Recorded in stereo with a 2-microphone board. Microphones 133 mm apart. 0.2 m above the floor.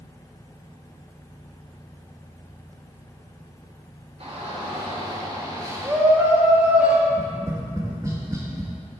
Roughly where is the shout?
Right.